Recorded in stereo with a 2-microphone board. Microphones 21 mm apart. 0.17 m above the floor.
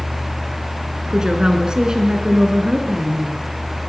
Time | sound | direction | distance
1.1 | a woman speaking | 35° right (ahead or behind) | 1.6 m